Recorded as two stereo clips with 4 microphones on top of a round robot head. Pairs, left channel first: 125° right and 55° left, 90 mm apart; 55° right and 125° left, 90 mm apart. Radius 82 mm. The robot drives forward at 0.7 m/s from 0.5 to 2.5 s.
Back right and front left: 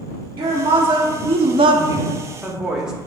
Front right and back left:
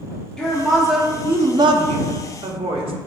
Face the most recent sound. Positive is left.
turn(degrees=140)